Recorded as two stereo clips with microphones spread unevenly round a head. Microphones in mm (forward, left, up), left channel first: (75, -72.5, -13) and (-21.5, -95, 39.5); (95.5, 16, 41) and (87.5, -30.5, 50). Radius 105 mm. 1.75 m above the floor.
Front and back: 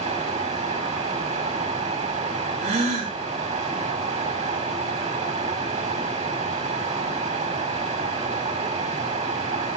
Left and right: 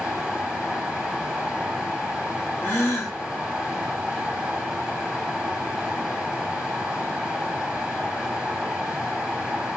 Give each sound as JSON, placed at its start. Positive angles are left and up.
{"t": 0.0, "sound": "running water", "azimuth_deg": 175, "distance_m": 6.0}
{"t": 2.6, "sound": "a gasp", "azimuth_deg": 150, "distance_m": 5.0}